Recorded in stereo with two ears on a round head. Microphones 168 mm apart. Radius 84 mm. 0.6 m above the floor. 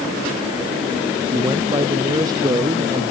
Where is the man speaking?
20° right (ahead or behind).